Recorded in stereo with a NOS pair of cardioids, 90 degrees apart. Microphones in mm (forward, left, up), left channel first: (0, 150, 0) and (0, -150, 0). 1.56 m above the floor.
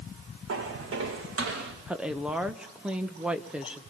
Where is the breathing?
I don't hear breathing.